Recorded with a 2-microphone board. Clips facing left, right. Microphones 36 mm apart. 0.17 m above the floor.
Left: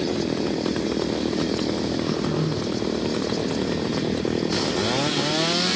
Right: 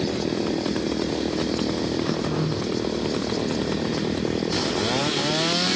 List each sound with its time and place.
2.0 s throat clearing: 30° right (ahead or behind), 7.5 m